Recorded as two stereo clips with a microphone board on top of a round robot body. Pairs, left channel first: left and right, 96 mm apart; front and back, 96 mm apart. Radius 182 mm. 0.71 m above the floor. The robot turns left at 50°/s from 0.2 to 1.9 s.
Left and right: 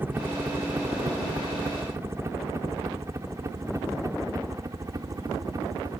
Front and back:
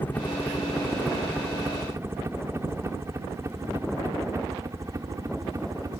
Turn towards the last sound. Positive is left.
turn(degrees=-135)